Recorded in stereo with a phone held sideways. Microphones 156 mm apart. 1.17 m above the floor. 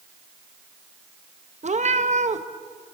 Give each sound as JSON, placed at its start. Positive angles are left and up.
{"t": 1.6, "sound": "a cat meowing", "side_deg": -50, "distance_m": 0.6}